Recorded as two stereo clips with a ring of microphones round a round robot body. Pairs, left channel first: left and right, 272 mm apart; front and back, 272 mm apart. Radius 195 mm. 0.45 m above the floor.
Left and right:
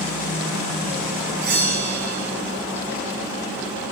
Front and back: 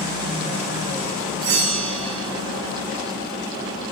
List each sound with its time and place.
1.4 s a bell: 150° right, 1.4 m